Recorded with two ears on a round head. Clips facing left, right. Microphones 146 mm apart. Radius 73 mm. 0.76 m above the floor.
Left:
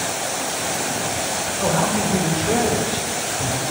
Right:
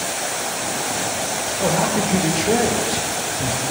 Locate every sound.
1.6 s a man speaking: 20° right (ahead or behind), 0.8 m